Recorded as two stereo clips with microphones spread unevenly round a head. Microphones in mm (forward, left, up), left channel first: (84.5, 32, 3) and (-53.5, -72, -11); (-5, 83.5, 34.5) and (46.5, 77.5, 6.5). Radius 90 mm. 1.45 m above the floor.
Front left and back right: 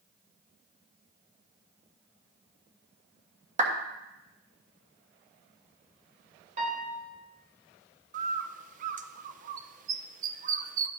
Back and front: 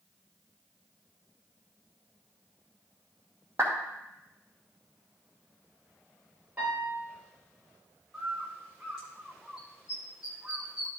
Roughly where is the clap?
Right.